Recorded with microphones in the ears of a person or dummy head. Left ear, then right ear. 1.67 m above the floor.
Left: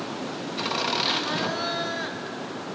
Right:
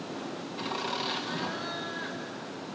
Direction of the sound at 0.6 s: 15° left (ahead or behind).